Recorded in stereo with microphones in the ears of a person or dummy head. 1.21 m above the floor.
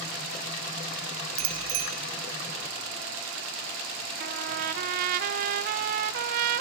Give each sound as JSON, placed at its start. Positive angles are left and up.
{"t": 1.4, "sound": "a bicycle bell", "side_deg": -85, "distance_m": 3.5}
{"t": 4.2, "sound": "a trumpet", "side_deg": -50, "distance_m": 0.8}